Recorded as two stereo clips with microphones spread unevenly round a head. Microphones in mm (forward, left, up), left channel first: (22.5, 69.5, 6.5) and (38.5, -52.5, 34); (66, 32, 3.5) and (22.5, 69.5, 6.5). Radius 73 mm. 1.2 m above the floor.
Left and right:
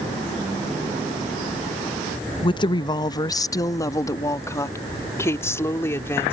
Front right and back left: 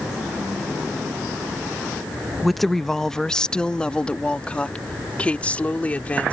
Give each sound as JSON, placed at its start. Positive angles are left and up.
{"t": 2.4, "sound": "a woman speaking", "azimuth_deg": 50}